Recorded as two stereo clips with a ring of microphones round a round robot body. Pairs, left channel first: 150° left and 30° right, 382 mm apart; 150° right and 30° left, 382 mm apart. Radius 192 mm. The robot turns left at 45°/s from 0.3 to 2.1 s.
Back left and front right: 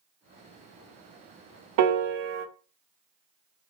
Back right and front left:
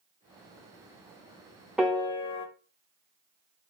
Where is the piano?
60° right, 0.6 m; by 2.5 s 75° right, 0.6 m.